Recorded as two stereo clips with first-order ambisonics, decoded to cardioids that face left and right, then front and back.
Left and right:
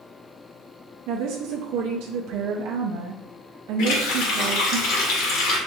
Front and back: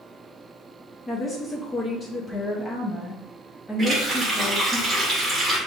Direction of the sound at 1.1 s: 75° right.